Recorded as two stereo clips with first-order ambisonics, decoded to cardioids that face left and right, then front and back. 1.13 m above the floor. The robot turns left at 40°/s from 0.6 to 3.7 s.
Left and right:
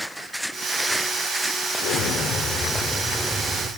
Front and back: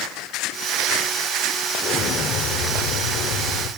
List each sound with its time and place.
1.8 s an explosion: 60° left, 3.5 m; by 3.7 s 20° right, 3.5 m